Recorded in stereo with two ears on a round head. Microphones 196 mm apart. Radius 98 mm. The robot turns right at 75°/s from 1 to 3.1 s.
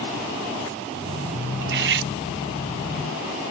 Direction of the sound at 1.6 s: 110° right.